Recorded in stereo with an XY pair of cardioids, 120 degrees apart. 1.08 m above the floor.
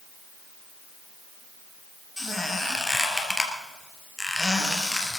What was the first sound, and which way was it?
A squeak, 10° left.